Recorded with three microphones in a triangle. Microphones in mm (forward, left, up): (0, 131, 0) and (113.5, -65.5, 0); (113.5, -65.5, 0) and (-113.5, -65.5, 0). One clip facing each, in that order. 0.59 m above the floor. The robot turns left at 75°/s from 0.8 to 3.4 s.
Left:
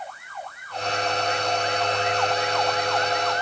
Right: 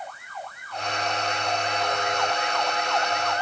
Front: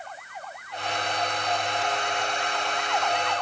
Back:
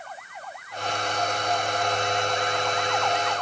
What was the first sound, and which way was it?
Only background noise.